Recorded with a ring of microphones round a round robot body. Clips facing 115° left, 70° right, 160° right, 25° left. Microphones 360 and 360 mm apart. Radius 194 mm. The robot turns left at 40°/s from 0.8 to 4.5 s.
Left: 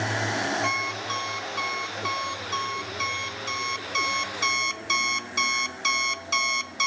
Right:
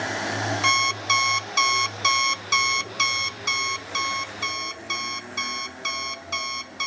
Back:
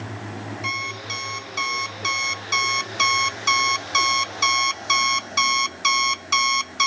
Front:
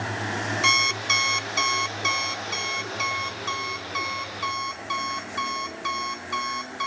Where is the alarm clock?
25° right, 0.7 m; by 6.9 s 175° right, 0.7 m.